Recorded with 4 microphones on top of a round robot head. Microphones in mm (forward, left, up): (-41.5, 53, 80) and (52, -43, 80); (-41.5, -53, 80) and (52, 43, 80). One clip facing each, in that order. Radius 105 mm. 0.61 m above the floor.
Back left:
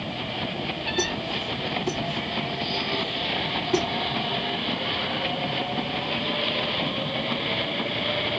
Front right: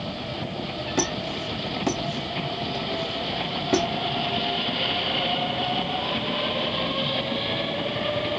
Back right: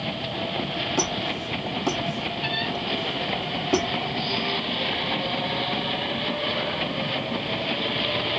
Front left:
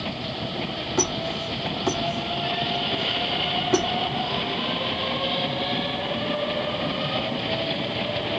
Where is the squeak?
50° right, 2.5 m.